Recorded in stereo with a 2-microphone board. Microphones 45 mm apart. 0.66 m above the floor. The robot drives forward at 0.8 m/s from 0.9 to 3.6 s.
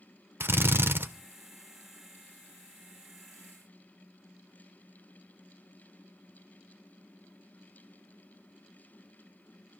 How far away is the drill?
About 0.9 m.